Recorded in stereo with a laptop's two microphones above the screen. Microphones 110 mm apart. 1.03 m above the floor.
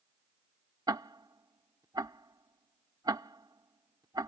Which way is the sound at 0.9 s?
35° right (ahead or behind).